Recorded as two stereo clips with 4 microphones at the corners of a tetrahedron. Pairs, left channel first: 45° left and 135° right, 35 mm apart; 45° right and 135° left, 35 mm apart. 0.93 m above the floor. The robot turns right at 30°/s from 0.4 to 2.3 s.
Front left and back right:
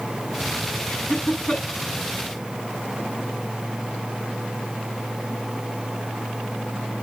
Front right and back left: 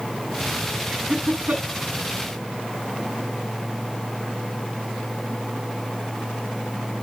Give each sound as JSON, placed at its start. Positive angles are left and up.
{"t": 0.9, "sound": "laughter", "azimuth_deg": 85, "distance_m": 9.0}